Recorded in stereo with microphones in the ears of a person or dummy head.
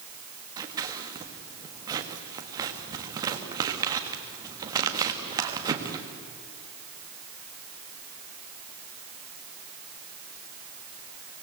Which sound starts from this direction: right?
Scissors, at 0.6 s.